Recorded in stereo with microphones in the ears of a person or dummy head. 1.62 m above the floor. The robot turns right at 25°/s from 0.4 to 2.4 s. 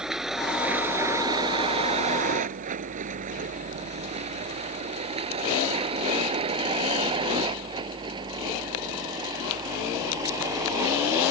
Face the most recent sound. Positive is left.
turn(degrees=-15)  # may be behind; listen again after turning